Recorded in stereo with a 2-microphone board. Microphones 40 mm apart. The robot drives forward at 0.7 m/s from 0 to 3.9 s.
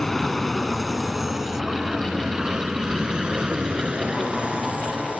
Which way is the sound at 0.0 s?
10° left (ahead or behind).